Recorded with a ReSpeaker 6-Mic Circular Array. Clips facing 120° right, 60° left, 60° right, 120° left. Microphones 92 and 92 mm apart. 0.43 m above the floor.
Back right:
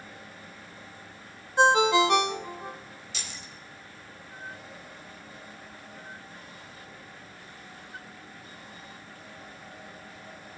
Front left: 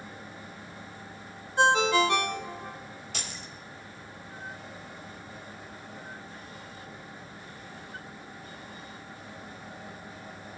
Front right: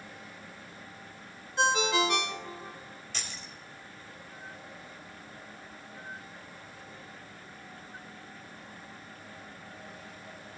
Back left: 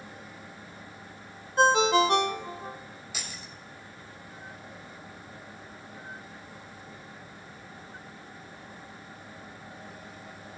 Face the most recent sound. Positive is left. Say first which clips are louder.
# front left 2 dB, even
turn(degrees=40)